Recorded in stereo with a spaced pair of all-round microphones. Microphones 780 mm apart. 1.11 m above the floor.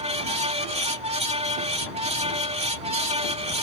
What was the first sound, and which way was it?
A fan, 10° right (ahead or behind).